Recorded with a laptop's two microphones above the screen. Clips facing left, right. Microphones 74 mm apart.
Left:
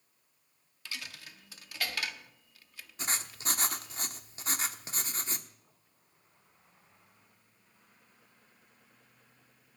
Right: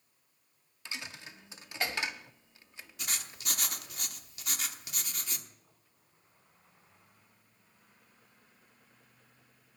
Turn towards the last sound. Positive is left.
turn(degrees=30)  # may be behind; listen again after turning